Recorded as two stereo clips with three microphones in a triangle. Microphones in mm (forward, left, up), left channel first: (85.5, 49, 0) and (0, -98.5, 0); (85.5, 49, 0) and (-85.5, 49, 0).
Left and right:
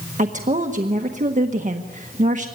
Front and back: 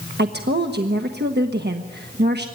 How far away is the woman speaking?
About 1.4 m.